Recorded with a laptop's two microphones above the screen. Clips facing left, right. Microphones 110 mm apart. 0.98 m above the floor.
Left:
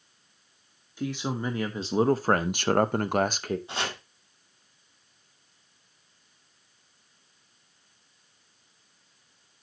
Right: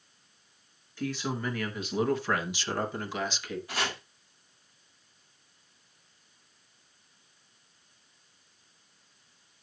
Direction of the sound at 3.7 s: 25° left (ahead or behind).